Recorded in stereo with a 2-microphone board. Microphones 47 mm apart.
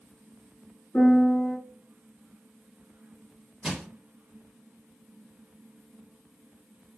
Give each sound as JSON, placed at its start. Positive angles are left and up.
{"t": 0.9, "sound": "a piano", "side_deg": 40, "distance_m": 1.5}
{"t": 3.6, "sound": "crushing", "side_deg": -10, "distance_m": 0.9}